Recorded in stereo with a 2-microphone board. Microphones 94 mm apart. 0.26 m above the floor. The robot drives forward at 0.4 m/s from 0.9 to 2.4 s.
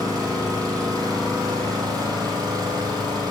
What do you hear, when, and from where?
0.0 s an engine running: 40° right (ahead or behind), 8 m; by 3.3 s 45° right (ahead or behind), 7.5 m